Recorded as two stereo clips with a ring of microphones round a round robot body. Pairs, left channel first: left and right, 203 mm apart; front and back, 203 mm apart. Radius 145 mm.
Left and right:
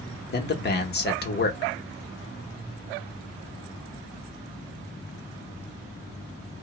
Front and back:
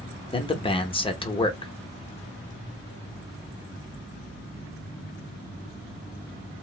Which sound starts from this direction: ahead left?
A man speaking, at 0.3 s.